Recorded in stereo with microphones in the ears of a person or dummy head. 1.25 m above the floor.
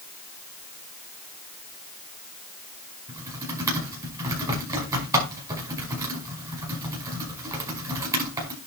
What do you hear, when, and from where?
3.1 s typing on a keyboard: 15° right (ahead or behind), 5.5 m